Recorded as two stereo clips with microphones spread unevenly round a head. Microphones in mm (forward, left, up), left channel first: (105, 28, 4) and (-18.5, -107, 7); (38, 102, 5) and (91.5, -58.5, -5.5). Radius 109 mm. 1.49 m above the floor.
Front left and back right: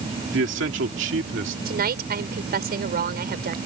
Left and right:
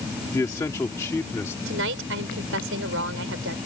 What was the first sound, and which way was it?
A man speaking, 175° right.